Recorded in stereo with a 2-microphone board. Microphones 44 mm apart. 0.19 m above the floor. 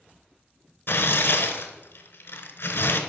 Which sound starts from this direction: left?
Tearing paper, at 0.9 s.